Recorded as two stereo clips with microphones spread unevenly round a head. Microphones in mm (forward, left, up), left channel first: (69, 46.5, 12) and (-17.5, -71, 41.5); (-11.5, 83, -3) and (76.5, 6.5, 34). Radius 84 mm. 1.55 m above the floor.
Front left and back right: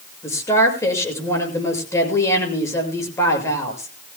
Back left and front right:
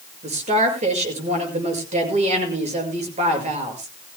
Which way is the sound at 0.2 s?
20° right.